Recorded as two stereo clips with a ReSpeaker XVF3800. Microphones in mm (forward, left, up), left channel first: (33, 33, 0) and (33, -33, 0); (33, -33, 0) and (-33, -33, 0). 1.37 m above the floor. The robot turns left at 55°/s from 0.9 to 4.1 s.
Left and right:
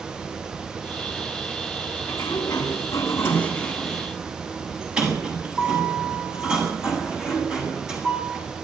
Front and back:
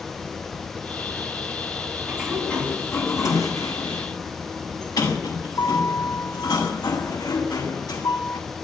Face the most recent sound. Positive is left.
turn(degrees=-15)